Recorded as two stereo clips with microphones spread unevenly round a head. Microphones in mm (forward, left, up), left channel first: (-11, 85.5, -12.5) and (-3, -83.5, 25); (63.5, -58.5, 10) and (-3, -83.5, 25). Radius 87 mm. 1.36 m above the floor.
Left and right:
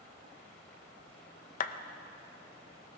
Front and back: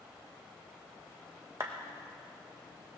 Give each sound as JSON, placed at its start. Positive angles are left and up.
{"t": 1.6, "sound": "a clap", "azimuth_deg": 140, "distance_m": 0.7}